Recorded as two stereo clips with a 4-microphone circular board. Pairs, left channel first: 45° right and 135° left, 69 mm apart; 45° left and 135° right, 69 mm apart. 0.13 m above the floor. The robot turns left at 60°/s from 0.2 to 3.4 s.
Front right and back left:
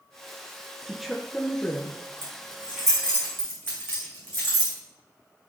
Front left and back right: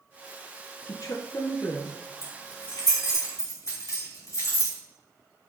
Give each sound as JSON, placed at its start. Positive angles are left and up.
{"t": 0.9, "sound": "a woman speaking", "azimuth_deg": 65, "distance_m": 1.7}
{"t": 2.2, "sound": "keys jangling", "azimuth_deg": 80, "distance_m": 6.0}